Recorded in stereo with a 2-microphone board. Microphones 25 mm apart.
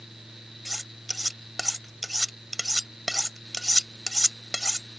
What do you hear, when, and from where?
0.7 s cutlery clinking: centre (ahead or behind)